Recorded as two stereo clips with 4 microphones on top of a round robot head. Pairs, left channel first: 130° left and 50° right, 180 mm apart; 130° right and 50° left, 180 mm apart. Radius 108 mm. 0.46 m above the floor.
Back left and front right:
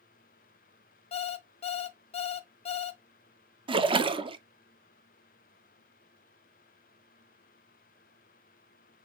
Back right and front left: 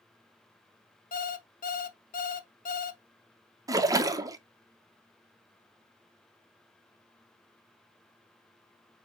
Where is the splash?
10° right, 0.5 m.